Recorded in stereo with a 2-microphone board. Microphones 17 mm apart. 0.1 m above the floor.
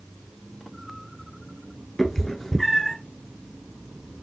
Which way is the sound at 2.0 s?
25° left (ahead or behind).